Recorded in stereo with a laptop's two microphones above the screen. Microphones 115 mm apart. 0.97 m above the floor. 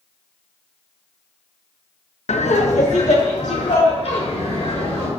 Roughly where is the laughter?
Left.